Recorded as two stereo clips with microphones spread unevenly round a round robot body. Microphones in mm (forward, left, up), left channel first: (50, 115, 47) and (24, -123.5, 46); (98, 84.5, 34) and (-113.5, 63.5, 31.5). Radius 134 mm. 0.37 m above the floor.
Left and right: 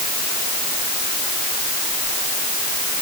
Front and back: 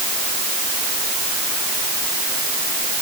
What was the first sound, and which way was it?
Only background noise.